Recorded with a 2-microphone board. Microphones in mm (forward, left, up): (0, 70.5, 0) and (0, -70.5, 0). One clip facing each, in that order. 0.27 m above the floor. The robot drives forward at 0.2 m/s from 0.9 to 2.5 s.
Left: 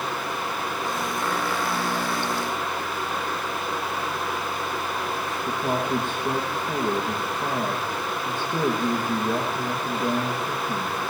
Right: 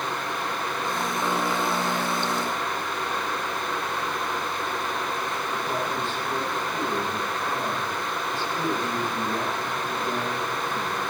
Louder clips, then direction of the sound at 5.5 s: Left 6 dB; 55° left (ahead or behind).